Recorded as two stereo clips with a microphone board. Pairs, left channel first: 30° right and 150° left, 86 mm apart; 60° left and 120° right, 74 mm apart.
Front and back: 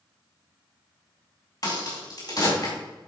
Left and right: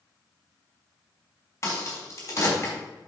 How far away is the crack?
About 4 m.